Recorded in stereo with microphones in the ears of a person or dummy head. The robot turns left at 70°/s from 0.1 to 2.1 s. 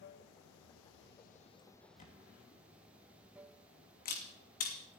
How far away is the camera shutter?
About 2.5 m.